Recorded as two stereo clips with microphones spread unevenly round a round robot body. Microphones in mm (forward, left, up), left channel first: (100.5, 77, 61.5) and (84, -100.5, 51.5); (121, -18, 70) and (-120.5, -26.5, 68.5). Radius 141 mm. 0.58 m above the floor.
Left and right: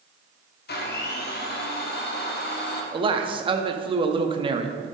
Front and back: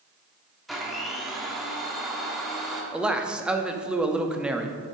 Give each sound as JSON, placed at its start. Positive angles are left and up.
{"t": 0.7, "sound": "a blender", "azimuth_deg": 95, "distance_m": 1.3}
{"t": 2.9, "sound": "a man speaking", "azimuth_deg": -95, "distance_m": 0.7}